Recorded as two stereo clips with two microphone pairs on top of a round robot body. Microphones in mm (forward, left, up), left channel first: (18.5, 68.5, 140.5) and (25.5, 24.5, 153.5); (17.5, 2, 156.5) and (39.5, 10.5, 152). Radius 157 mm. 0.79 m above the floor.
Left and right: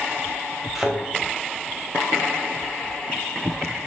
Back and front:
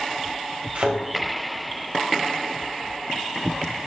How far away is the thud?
About 2.5 m.